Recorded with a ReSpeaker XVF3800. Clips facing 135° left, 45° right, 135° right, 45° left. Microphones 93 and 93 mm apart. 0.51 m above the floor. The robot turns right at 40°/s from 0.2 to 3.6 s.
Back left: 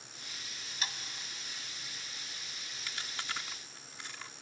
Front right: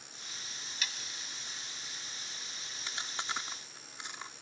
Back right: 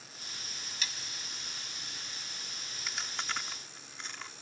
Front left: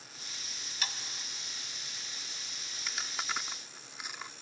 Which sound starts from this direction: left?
Sawing, at 0.8 s.